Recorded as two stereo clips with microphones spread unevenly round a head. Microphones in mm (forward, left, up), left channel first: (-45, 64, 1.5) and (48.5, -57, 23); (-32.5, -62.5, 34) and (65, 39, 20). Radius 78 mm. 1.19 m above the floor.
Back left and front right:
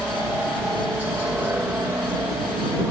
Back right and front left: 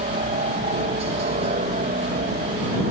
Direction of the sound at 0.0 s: 35° left.